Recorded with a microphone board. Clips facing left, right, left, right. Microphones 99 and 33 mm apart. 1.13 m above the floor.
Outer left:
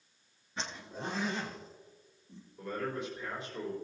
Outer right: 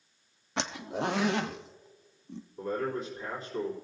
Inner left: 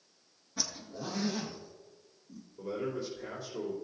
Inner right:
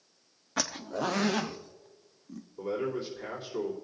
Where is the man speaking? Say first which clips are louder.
Outer right 4 dB, inner right 3 dB; 40° right (ahead or behind), 3.5 m.